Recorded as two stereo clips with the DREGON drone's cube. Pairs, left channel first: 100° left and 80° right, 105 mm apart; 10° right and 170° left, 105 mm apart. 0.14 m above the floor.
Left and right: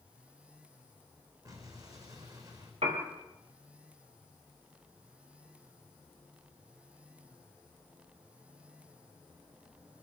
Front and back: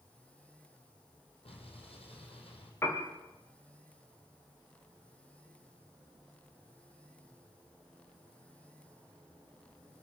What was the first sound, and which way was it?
An explosion, 30° right.